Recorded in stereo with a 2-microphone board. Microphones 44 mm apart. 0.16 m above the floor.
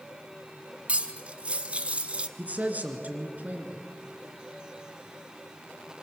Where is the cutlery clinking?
30° right (ahead or behind), 0.8 m.